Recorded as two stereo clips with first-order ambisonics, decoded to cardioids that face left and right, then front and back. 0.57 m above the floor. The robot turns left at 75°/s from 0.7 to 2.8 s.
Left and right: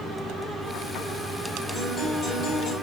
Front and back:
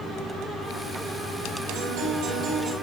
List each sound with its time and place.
1.7 s a guitar: 170° right, 3.5 m; by 2.7 s 115° left, 3.5 m